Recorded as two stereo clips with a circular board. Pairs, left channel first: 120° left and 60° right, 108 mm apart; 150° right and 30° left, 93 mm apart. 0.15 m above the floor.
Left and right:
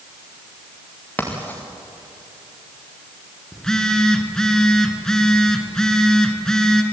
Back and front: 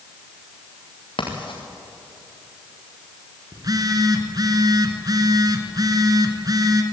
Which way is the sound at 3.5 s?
40° left.